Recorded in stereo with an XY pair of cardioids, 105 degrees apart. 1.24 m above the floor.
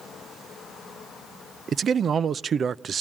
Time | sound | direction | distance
1.7 | a man speaking | 45° right | 0.5 m